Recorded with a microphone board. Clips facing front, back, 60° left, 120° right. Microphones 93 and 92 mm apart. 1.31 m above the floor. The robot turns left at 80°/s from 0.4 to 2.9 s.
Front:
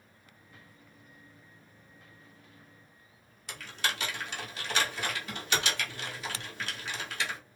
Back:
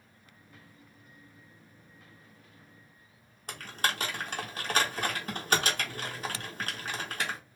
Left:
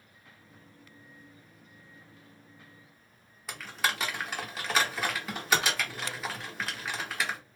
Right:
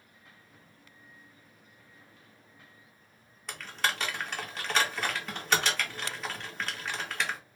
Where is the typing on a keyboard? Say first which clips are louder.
Back 2 dB, even; 145° left, 1.0 m.